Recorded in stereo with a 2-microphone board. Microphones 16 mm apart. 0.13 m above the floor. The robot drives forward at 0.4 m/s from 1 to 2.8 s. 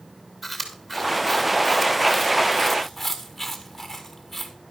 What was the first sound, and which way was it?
Chewing, 5° left (ahead or behind).